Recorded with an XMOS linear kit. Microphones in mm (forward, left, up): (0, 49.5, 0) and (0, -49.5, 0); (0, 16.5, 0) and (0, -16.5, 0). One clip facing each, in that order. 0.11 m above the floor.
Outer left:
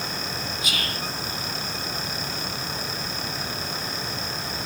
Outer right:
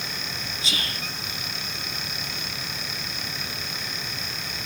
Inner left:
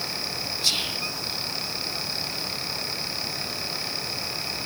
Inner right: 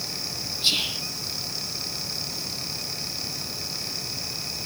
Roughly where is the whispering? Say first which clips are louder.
Outer right 1 dB, inner right 2 dB; right.